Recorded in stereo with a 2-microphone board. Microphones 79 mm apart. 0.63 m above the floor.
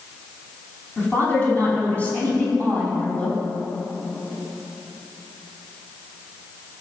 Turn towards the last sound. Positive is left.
turn(degrees=20)  # may be behind; listen again after turning